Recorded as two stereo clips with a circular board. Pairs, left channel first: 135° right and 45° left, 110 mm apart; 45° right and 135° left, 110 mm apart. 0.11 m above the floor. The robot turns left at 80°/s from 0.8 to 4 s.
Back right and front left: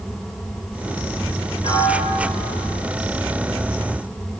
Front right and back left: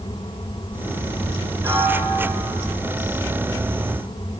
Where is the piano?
170° right, 3 m; by 2.7 s 105° left, 3 m.